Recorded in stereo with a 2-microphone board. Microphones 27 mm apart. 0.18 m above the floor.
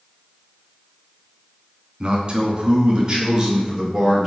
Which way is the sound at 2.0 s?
40° right (ahead or behind).